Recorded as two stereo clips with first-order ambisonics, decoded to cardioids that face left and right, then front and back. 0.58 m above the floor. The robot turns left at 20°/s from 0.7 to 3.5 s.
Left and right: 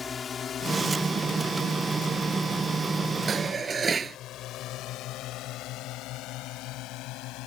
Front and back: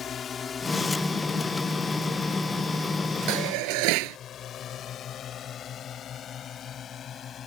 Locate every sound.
0.0 s a drone: 35° left; by 7.5 s 60° left
3.3 s dishes clattering: 160° right